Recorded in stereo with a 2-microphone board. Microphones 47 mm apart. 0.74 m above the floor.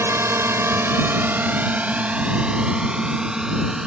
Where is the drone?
70° right (ahead or behind); by 3.9 s 15° right (ahead or behind).